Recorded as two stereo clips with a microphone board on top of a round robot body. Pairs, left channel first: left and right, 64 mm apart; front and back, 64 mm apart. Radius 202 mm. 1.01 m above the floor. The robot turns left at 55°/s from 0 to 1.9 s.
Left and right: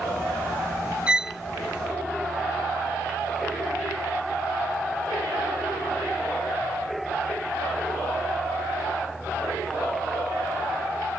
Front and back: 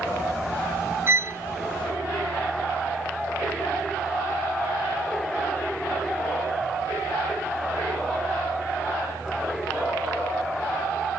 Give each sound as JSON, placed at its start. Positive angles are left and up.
{"t": 1.1, "sound": "a violin", "azimuth_deg": -155}